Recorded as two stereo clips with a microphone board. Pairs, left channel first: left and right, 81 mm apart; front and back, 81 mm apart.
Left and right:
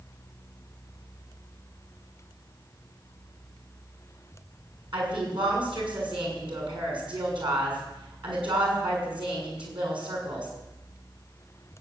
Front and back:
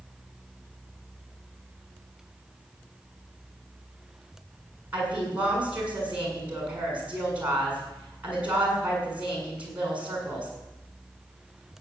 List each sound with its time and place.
4.9 s a woman speaking: 105° right, 6.5 m